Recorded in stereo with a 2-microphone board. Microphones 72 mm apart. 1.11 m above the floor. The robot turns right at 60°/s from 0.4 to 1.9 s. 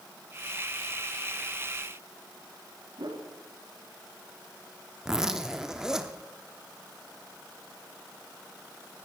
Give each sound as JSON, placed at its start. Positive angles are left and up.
{"t": 3.0, "sound": "a whoosh", "side_deg": -70, "distance_m": 1.3}
{"t": 5.0, "sound": "a zipper", "side_deg": -10, "distance_m": 0.7}